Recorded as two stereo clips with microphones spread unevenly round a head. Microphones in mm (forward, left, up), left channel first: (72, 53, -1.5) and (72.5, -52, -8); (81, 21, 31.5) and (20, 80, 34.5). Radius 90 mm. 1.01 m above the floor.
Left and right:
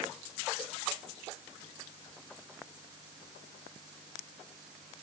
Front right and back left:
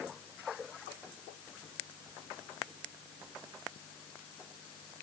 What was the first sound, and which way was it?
Only background noise.